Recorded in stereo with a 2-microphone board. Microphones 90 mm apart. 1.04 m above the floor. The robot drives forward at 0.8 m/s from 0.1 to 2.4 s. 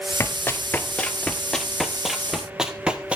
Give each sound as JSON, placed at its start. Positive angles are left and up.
{"t": 0.2, "sound": "running footsteps", "side_deg": 30, "distance_m": 1.3}